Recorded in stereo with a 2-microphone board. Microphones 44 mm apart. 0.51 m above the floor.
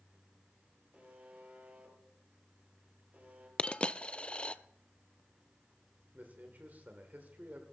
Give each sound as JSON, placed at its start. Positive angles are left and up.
{"t": 0.9, "sound": "a buzzer", "side_deg": -35, "distance_m": 4.0}
{"t": 3.6, "sound": "a dropped coin", "side_deg": 25, "distance_m": 0.5}
{"t": 6.1, "sound": "a man speaking", "side_deg": -40, "distance_m": 1.8}